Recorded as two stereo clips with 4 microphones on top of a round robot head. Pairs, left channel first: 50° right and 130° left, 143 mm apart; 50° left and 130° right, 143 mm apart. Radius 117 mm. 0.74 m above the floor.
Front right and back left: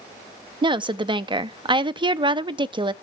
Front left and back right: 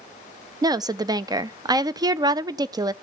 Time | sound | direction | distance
0.6 | a woman speaking | 175° left | 0.6 m